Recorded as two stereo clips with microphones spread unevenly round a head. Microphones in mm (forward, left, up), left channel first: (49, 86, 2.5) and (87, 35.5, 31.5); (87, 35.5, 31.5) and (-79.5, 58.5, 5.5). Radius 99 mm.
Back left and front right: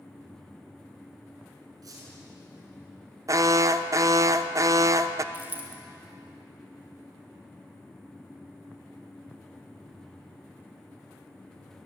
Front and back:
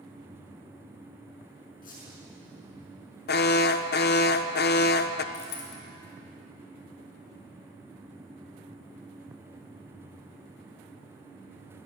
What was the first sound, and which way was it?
A squeak, 55° right.